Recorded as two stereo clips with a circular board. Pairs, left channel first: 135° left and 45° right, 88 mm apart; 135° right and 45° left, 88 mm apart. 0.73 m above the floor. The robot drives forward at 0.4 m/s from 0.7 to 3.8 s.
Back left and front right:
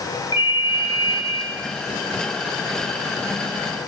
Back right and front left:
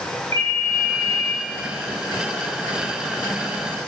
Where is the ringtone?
170° left, 7 m.